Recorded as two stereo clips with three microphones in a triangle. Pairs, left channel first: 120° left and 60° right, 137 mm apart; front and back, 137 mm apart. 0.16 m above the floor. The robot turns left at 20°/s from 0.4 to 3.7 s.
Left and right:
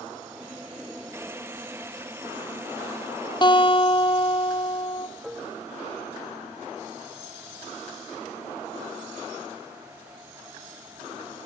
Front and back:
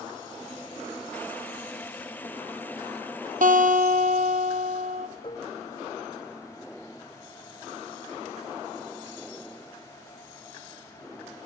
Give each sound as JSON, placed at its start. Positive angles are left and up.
{"t": 3.4, "sound": "a guitar", "azimuth_deg": 175, "distance_m": 1.2}
{"t": 5.2, "sound": "dishes clattering", "azimuth_deg": 25, "distance_m": 1.0}